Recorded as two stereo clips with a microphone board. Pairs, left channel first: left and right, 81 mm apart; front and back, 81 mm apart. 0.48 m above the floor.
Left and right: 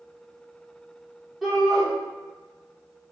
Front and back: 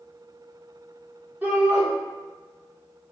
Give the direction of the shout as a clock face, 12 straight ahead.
6 o'clock.